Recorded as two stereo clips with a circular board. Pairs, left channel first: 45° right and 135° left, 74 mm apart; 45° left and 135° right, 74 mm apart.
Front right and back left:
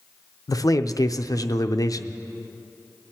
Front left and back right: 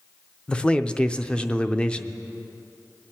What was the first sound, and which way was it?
A man speaking, 30° right.